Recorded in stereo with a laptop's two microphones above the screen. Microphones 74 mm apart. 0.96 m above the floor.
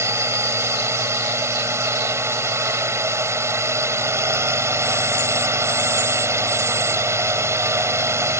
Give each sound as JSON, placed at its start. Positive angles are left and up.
{"t": 0.0, "sound": "a drone", "side_deg": -35}